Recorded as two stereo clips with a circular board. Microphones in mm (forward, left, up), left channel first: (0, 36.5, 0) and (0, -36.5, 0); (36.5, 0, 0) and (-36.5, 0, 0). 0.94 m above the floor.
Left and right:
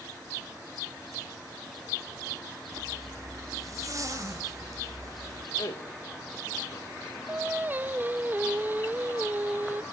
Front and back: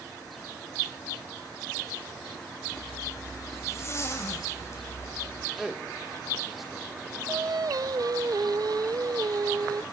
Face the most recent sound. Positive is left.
turn(degrees=-155)